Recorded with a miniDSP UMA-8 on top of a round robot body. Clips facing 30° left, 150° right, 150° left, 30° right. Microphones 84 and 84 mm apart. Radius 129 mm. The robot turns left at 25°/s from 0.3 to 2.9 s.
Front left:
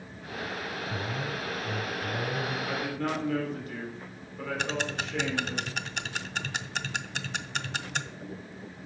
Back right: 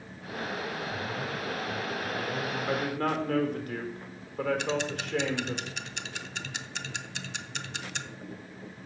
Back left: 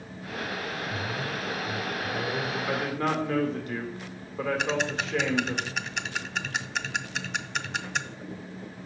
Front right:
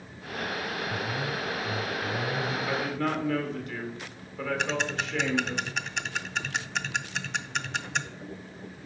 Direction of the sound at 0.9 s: 45° left.